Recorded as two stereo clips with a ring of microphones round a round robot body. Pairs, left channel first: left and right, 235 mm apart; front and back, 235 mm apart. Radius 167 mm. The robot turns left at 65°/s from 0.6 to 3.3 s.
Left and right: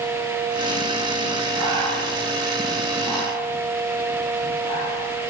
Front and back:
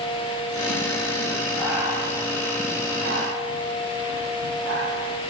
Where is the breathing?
85° right, 9.5 m; by 5.1 s 165° left, 9.5 m.